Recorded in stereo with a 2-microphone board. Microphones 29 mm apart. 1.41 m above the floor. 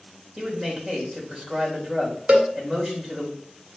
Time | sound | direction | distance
0.4 | a man speaking | 20° right (ahead or behind) | 3.5 m
2.3 | a cowbell | 55° right (ahead or behind) | 1.4 m